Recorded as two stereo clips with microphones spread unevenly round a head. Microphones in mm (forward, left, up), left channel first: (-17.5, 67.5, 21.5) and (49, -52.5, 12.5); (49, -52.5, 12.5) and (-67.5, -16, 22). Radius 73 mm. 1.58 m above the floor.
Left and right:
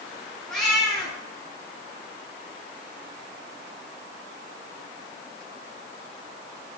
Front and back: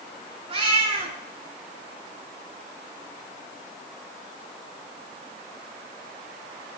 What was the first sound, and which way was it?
A cat meowing, 155° right.